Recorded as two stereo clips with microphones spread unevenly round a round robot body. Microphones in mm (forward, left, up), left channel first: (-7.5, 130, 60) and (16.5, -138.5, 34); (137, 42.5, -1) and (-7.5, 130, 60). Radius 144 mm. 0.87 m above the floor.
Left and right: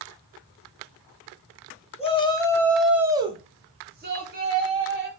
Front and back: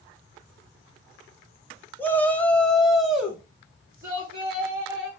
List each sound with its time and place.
2.0 s a shout: 25° left, 1.1 m; by 5.1 s 125° right, 1.6 m